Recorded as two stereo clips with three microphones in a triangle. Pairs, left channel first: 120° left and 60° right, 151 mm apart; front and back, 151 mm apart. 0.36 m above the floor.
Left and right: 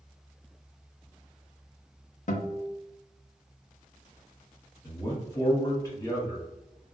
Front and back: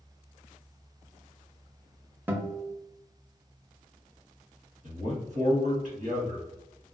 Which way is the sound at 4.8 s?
175° right.